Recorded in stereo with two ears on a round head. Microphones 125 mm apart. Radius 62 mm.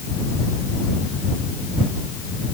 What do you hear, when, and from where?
Only background noise.